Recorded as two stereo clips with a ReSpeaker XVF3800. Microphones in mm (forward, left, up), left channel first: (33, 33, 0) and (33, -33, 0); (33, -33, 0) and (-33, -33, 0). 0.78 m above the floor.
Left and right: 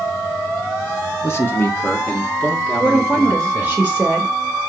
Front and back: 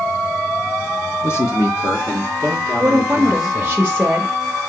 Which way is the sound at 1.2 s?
45° left.